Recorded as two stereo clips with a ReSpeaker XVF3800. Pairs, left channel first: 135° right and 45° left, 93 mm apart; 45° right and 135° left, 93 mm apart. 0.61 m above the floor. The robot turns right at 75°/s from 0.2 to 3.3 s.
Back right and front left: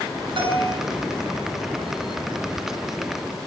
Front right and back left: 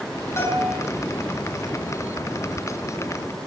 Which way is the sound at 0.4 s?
15° left.